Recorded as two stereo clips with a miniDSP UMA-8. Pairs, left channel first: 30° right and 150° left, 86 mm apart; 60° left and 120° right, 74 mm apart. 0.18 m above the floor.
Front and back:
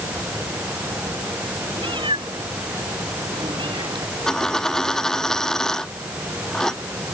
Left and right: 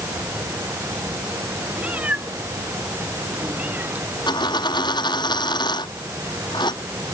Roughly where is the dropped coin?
Ahead left.